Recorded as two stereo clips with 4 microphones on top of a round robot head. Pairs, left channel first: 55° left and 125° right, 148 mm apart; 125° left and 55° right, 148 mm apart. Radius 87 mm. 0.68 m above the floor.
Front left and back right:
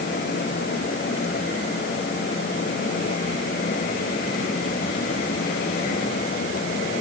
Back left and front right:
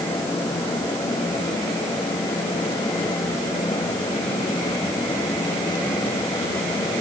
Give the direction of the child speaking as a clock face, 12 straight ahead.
I don't hear a child speaking.